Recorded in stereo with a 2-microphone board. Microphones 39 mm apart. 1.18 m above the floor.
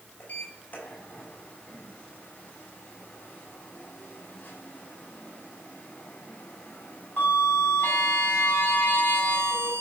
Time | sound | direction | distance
0.2 | a sliding door | 40° left (ahead or behind) | 6 m